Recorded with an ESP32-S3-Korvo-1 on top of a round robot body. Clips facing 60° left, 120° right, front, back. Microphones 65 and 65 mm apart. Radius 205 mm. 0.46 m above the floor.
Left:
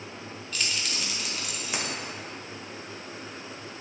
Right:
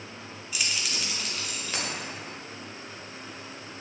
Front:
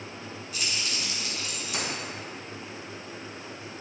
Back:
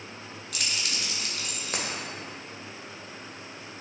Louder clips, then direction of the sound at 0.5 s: Even, even; 160° left.